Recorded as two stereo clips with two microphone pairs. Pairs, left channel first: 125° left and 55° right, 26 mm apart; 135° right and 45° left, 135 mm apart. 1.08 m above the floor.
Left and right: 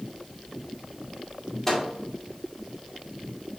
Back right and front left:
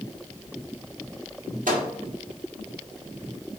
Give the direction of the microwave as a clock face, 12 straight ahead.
11 o'clock.